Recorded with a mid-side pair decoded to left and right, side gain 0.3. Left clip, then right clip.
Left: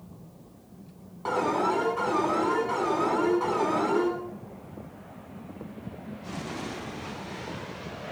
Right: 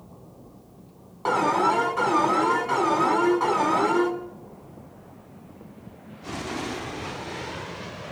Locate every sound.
1.2 s an alarm: 60° right, 9.5 m